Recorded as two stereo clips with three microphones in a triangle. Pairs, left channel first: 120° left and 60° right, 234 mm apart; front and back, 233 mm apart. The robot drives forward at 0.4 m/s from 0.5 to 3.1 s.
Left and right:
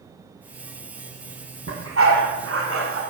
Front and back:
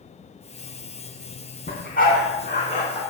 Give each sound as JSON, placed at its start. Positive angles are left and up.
{"t": 1.7, "sound": "a dog barking", "azimuth_deg": -45, "distance_m": 2.5}